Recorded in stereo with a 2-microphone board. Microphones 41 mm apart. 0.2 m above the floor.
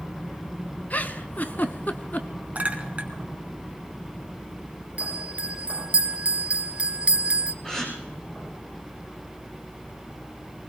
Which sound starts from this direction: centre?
A gasp, at 7.6 s.